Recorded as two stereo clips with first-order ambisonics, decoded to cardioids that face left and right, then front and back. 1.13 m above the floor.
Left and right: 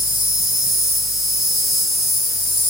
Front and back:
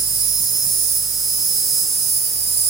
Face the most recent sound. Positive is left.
turn(degrees=175)